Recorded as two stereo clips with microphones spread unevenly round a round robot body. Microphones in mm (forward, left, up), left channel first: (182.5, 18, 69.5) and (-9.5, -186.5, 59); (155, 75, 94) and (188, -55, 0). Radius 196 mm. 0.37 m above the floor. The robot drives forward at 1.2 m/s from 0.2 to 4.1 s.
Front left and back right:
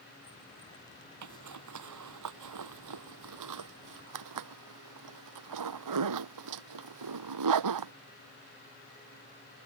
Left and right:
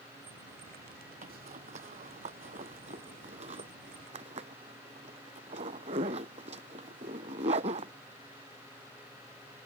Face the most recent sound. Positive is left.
turn(degrees=-135)